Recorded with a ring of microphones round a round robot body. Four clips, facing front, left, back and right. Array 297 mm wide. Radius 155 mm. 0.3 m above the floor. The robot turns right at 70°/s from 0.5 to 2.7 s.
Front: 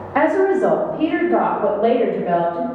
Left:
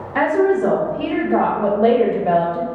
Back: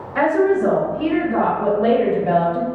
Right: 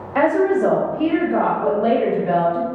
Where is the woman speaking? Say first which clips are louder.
Even, front 1 dB; 25° right, 1.0 m; by 2.6 s 125° left, 1.0 m.